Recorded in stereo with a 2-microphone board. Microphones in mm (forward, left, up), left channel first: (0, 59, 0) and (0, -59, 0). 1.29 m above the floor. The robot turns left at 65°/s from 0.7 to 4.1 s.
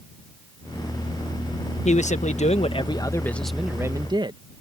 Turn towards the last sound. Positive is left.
turn(degrees=-40)